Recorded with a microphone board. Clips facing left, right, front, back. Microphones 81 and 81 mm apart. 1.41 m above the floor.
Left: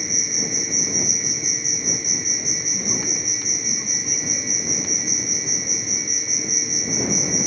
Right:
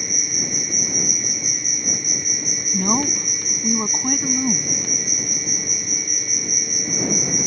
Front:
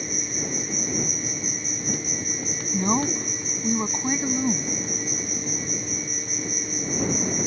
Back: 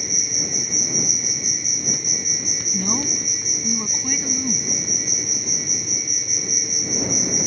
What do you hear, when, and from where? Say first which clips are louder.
0.0 s an insect: even, front 1 dB; 55° right
2.7 s a woman speaking: right 10 dB, front 3 dB; 60° right